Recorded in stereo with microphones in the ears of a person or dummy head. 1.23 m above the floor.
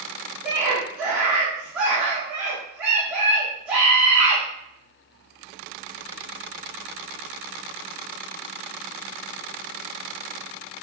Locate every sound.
0.4 s a scream: 10° right (ahead or behind), 1.9 m